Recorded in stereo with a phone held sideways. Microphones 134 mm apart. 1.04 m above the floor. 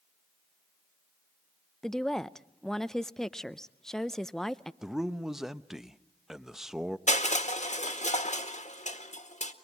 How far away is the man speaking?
About 0.8 m.